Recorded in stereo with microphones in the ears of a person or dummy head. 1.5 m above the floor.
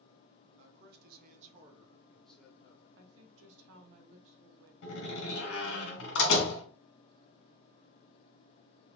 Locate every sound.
0.6 s a man speaking: 75° right (ahead or behind), 1.0 m; by 2.9 s 25° left (ahead or behind), 0.9 m
3.0 s a woman speaking: 80° right, 0.9 m
4.8 s a door slam: 80° left, 1.7 m